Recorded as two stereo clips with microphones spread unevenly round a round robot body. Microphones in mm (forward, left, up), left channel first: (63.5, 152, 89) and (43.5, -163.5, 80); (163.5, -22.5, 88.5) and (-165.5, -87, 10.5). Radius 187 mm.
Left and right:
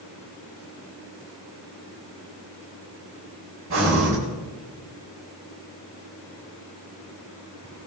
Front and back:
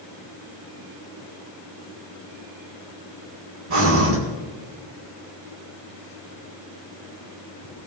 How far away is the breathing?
About 7.5 m.